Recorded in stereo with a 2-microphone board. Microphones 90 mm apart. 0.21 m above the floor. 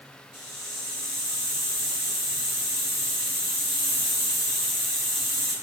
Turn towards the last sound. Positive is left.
turn(degrees=50)  # may be behind; listen again after turning